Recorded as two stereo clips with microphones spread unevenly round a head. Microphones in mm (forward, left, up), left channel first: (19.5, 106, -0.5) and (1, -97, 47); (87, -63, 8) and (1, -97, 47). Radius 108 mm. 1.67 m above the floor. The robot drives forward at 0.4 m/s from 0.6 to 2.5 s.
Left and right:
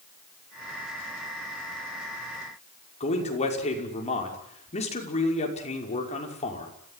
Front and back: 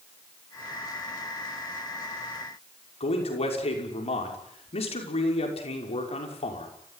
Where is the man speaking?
25° left, 5.5 m.